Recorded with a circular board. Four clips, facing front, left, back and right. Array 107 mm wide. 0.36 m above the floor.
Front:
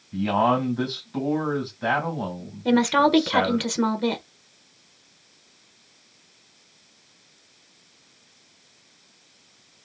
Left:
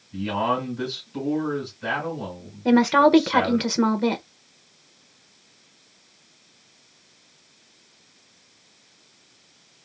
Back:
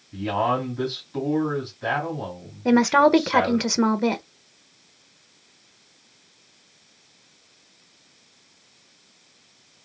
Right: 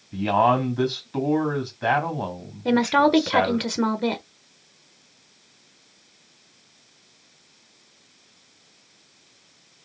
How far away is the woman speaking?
About 0.8 m.